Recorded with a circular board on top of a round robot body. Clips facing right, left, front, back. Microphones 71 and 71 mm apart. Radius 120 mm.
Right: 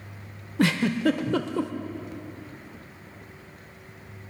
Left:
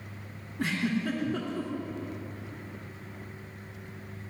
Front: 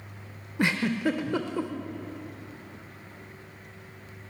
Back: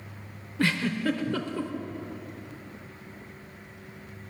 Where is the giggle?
70° right, 0.6 m.